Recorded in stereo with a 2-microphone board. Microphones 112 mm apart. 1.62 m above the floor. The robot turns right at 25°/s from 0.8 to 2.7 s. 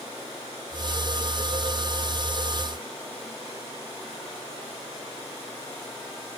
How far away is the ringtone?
No ringtone in this recording.